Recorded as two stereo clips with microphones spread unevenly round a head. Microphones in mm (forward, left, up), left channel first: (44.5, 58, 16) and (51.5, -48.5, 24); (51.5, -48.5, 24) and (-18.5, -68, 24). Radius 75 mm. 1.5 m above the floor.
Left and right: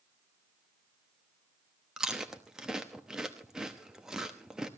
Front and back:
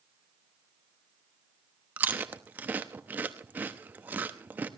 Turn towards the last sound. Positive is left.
turn(degrees=-150)